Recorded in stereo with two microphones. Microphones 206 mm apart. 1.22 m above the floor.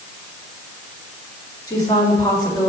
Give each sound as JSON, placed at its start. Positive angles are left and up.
{"t": 1.7, "sound": "a woman speaking", "side_deg": 20, "distance_m": 3.5}